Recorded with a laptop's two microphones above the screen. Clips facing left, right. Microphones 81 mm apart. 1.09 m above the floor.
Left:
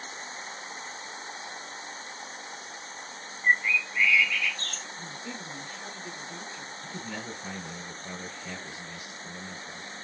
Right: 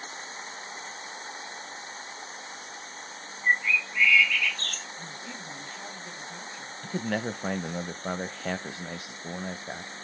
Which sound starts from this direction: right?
A man speaking, at 6.8 s.